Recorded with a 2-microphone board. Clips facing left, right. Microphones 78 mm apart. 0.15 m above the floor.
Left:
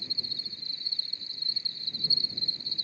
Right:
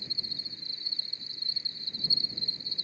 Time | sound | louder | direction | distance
0.0 | an insect | left 1 dB | 20° right (ahead or behind) | ?